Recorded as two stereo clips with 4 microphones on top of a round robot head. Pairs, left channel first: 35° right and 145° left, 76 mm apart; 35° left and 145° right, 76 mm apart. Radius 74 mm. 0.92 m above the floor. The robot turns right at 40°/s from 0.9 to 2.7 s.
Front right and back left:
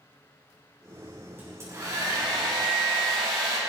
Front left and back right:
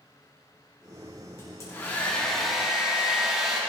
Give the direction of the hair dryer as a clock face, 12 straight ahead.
9 o'clock.